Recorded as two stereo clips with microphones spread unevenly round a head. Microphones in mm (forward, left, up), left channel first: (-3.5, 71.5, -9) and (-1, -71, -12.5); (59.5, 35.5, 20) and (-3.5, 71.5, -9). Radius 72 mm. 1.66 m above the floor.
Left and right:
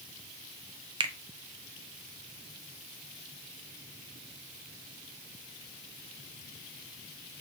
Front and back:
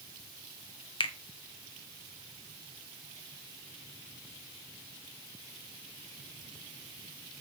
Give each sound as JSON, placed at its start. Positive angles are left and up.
{"t": 1.0, "sound": "a finger snap", "azimuth_deg": -25, "distance_m": 0.8}